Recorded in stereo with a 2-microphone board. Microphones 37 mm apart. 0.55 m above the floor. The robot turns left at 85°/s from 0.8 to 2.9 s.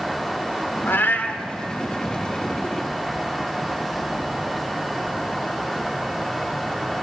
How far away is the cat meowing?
About 0.6 m.